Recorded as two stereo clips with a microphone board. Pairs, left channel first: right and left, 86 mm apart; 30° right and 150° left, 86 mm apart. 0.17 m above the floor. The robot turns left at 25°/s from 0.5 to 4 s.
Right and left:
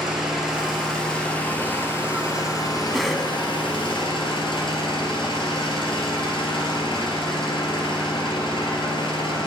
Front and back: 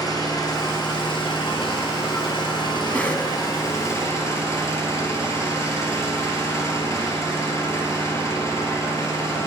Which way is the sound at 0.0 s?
5° left.